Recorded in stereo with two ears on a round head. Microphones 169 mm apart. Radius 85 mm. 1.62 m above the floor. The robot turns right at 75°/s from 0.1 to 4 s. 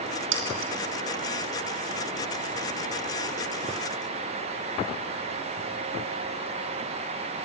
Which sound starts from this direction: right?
Keys jangling, at 0.3 s.